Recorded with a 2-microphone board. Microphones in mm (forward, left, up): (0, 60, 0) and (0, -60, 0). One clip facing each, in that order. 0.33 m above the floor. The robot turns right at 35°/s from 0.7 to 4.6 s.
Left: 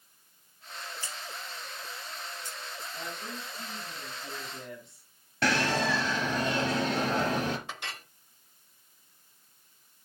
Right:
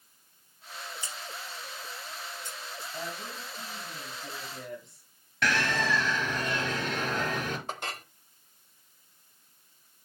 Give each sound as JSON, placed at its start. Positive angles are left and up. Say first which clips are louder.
{"t": 1.0, "sound": "scissors", "louder": "even", "side_deg": -20, "distance_m": 3.5}
{"t": 2.9, "sound": "a woman speaking", "louder": "right 2 dB", "azimuth_deg": -60, "distance_m": 2.5}
{"t": 5.4, "sound": "a bird", "louder": "left 1 dB", "side_deg": 35, "distance_m": 1.8}
{"t": 7.7, "sound": "a clink", "louder": "right 4 dB", "side_deg": -45, "distance_m": 0.6}